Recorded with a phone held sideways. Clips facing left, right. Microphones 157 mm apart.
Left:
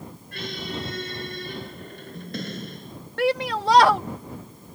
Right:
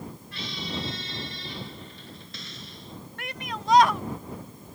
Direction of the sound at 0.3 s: 55° left (ahead or behind).